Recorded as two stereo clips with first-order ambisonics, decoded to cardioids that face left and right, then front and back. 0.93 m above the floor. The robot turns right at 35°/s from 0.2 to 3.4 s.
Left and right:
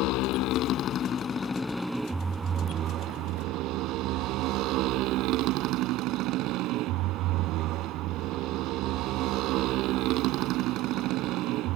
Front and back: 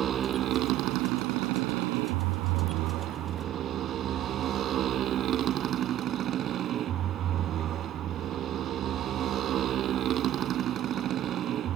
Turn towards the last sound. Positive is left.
turn(degrees=-125)